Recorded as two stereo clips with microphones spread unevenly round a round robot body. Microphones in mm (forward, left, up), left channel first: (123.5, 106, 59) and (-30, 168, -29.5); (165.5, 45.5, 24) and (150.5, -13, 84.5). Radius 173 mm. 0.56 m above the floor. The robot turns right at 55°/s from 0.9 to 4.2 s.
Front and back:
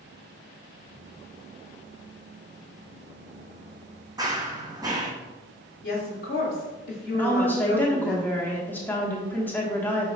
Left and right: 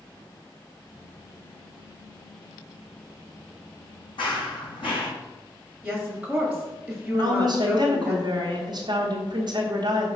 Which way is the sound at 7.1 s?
165° right.